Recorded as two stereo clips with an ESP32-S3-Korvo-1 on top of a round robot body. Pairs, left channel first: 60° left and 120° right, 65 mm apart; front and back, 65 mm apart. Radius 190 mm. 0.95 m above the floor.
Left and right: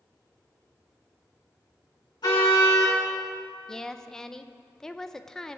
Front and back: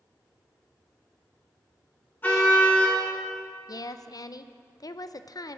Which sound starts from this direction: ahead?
A woman speaking, at 3.7 s.